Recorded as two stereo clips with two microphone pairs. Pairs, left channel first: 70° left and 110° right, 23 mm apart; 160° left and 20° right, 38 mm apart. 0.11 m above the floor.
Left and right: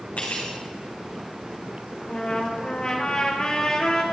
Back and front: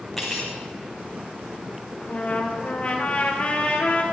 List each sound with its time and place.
0.2 s cutlery clinking: 75° left, 4.5 m
2.0 s a trumpet: 115° left, 2.5 m